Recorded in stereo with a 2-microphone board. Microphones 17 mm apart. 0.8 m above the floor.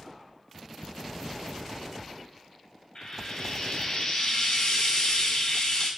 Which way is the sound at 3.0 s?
55° left (ahead or behind).